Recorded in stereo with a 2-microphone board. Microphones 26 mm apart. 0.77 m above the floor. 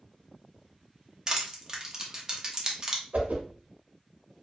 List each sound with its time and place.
1.3 s crushing: 25° right (ahead or behind), 0.7 m
3.1 s a whoosh: 75° right (ahead or behind), 0.6 m